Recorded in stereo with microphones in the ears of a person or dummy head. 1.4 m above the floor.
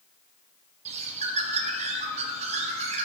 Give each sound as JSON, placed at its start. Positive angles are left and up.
{"t": 0.8, "sound": "a bird", "side_deg": -40, "distance_m": 0.8}